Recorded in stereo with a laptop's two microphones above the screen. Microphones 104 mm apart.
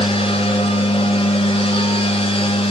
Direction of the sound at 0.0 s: 70° left (ahead or behind).